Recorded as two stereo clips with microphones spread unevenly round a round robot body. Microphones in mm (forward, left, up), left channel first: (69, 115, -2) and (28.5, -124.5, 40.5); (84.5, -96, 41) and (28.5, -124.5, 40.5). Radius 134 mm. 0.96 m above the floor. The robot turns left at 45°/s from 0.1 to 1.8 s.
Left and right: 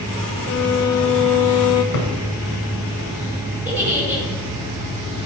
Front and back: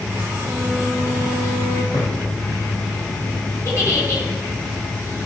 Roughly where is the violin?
Behind left.